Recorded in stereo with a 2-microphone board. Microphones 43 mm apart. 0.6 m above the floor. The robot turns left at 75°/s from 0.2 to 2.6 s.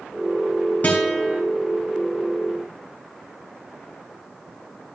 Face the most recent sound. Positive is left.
turn(degrees=-90)